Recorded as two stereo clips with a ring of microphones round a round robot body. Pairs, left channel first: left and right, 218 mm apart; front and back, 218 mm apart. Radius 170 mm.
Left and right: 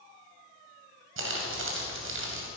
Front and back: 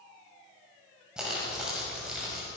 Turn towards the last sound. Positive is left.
turn(degrees=-95)